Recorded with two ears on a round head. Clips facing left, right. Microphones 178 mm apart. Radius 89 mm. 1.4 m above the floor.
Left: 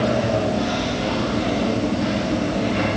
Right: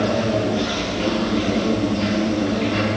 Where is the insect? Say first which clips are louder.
Even; 85° right, 8.5 m.